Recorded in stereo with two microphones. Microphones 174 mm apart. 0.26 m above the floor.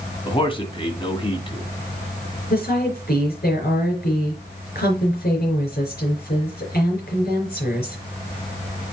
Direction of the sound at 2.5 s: 65° left (ahead or behind).